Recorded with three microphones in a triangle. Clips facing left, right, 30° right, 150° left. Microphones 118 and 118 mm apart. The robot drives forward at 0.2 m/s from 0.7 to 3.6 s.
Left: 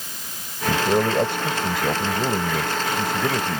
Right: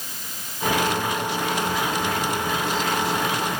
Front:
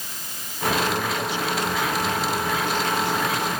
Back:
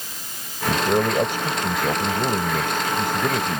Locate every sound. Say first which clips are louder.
0.7 s a man speaking: left 3 dB, back 4 dB; 115° left; by 3.6 s 120° left